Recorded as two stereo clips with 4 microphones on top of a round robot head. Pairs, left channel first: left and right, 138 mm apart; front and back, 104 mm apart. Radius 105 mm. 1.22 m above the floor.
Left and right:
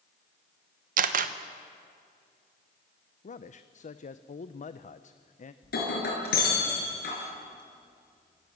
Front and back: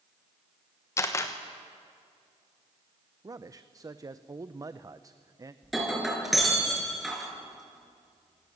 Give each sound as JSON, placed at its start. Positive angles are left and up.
{"t": 1.0, "sound": "a camera shutter", "azimuth_deg": -70, "distance_m": 1.2}
{"t": 3.2, "sound": "a man speaking", "azimuth_deg": 120, "distance_m": 0.8}
{"t": 5.6, "sound": "breaking glass", "azimuth_deg": 90, "distance_m": 6.5}